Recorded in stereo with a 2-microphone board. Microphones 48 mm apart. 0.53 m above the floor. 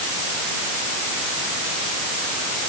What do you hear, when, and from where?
Only background noise.